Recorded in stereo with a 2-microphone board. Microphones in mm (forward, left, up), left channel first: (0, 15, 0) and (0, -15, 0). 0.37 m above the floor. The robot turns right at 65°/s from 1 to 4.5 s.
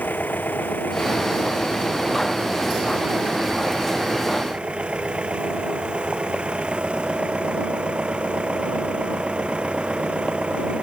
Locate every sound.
0.0 s an engine running: 100° left; by 10.8 s 35° right